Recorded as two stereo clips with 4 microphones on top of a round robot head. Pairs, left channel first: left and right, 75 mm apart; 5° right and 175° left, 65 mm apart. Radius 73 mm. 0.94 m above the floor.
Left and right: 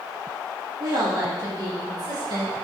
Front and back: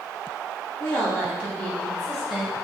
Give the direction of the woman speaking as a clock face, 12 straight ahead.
2 o'clock.